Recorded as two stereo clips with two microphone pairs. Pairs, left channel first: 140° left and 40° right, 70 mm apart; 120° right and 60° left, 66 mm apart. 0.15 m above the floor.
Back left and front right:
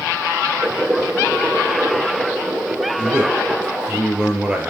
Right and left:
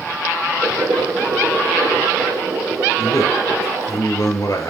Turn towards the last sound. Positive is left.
turn(degrees=-115)